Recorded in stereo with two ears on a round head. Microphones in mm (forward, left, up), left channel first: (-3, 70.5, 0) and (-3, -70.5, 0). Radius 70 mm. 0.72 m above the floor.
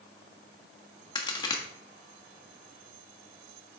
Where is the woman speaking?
I don't hear a woman speaking.